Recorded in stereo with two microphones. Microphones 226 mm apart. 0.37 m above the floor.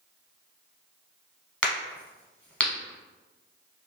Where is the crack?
5° left (ahead or behind), 0.7 m.